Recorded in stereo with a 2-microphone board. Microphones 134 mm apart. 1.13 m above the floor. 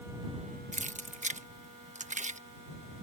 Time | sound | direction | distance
0.7 | keys jangling | 60° right (ahead or behind) | ?